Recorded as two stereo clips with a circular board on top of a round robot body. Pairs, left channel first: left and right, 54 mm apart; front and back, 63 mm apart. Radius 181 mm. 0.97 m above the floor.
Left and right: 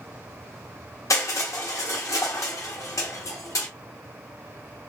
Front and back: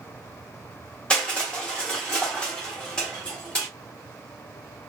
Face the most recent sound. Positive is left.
turn(degrees=75)